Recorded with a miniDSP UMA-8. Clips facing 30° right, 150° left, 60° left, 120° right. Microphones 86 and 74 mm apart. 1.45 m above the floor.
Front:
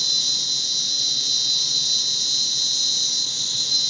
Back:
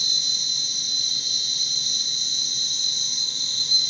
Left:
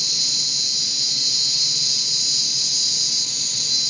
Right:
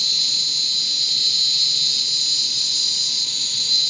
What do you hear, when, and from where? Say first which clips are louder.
0.0 s an insect: front 1 dB, right 2 dB; 15° right, 0.8 m